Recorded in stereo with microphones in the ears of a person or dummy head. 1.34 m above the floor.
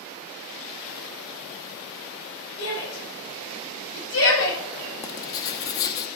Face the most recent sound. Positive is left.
turn(degrees=20)  # may be behind; listen again after turning